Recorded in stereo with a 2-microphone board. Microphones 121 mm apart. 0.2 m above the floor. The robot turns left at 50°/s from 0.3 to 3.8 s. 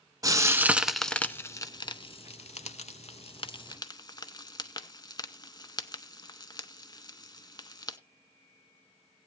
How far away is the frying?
About 0.7 m.